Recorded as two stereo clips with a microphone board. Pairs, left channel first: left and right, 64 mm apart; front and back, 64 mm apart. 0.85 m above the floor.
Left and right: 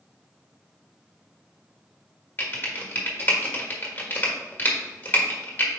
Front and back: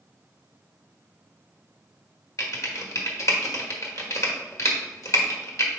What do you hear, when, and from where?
2.4 s typing on a keyboard: 30° left, 1.3 m